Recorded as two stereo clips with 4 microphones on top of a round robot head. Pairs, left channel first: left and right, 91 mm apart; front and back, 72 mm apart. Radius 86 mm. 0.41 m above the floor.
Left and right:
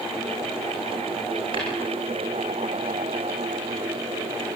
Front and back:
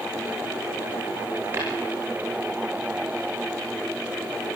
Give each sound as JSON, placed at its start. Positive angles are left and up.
{"t": 1.5, "sound": "tapping", "azimuth_deg": -120, "distance_m": 9.0}